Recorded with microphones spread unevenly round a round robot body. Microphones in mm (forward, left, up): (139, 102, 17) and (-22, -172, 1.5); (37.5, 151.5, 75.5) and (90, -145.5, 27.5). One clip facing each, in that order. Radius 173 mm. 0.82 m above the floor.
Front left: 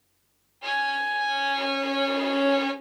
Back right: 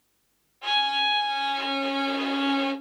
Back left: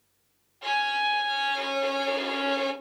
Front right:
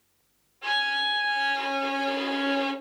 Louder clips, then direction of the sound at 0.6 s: Back right 1 dB, back left 3 dB; 145° left.